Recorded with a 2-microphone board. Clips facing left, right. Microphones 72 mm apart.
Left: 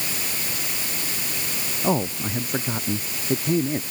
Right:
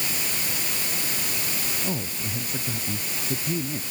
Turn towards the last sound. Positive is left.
turn(degrees=50)  # may be behind; listen again after turning